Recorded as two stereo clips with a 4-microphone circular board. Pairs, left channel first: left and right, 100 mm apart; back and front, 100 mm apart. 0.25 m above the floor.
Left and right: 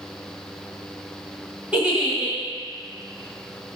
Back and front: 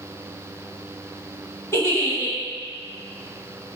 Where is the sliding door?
No sliding door in this recording.